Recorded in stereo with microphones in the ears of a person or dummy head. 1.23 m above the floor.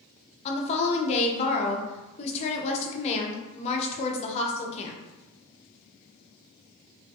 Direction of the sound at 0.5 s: 35° left (ahead or behind).